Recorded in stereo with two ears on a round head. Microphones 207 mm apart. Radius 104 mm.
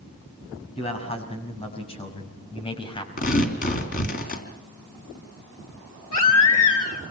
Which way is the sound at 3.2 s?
35° left (ahead or behind).